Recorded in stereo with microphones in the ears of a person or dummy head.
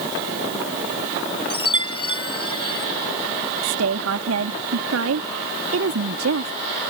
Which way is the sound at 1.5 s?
20° left (ahead or behind).